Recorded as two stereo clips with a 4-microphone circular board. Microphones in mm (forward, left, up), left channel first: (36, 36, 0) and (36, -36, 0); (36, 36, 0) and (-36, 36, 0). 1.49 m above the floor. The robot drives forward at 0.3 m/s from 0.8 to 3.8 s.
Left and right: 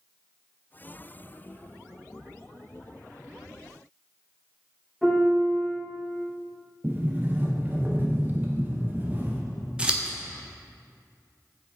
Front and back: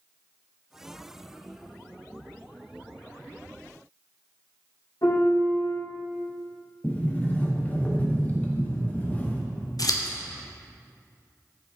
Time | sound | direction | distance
5.0 | a piano | 5° left | 2 m
6.8 | a sliding door | 50° right | 0.7 m
9.8 | scissors | 15° right | 0.6 m